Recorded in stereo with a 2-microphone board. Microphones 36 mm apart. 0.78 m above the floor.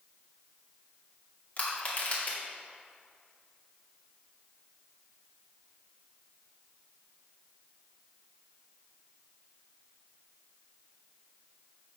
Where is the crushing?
50° left (ahead or behind), 2.5 m.